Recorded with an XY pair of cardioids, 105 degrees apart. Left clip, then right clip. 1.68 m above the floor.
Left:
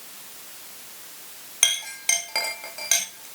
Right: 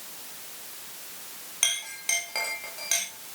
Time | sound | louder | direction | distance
1.6 | a clink | left 5 dB | 35° left | 1.8 m